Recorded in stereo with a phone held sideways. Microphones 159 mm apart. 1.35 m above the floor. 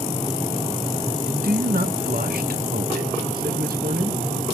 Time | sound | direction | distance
1.3 | a man speaking | 70° right (ahead or behind) | 2.0 m